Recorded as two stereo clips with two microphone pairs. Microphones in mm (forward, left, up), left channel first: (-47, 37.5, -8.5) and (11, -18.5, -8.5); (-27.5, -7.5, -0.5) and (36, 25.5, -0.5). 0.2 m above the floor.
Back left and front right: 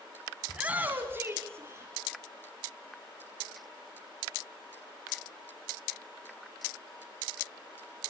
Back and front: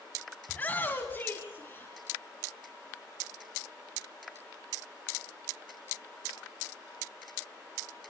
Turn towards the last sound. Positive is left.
turn(degrees=-95)